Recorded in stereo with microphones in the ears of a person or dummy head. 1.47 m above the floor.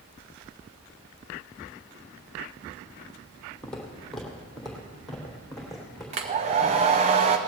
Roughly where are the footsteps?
Centre.